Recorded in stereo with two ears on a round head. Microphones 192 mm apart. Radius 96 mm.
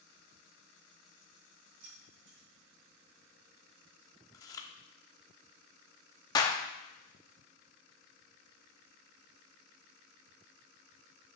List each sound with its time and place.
1.8 s keys jangling: 60° right (ahead or behind), 5 m
4.3 s chewing: 15° left (ahead or behind), 0.7 m
6.3 s a clap: 20° left (ahead or behind), 1.0 m